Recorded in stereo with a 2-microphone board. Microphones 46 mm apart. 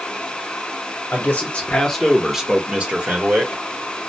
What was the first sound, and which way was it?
A man speaking, 40° left (ahead or behind).